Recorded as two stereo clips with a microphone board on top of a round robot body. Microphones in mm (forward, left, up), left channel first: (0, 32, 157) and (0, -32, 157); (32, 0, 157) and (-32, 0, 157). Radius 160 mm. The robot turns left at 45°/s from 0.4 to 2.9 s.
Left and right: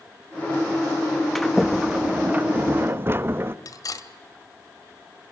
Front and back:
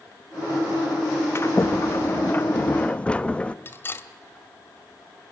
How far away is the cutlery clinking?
About 2 m.